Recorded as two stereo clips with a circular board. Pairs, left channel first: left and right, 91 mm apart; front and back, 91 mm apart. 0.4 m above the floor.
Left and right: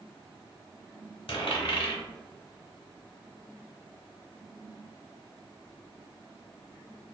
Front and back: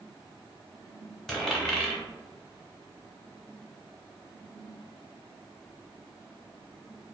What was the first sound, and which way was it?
A dropped coin, 85° left.